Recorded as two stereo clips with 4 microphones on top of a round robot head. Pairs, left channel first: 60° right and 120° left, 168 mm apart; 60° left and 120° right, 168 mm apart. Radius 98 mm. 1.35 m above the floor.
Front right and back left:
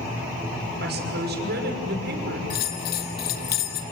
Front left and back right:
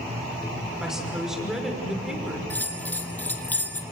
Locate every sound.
0.8 s a woman speaking: 150° left, 5.5 m
2.5 s a bell: 20° right, 2.0 m